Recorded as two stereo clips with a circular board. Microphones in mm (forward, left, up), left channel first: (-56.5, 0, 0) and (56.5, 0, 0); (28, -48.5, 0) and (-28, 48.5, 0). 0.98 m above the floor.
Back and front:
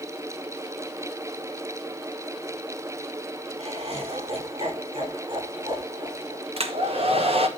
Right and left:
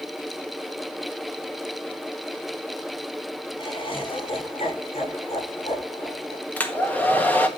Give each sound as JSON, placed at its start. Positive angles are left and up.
{"t": 3.6, "sound": "laughter", "azimuth_deg": -20, "distance_m": 3.5}
{"t": 6.6, "sound": "a hair dryer", "azimuth_deg": 15, "distance_m": 1.5}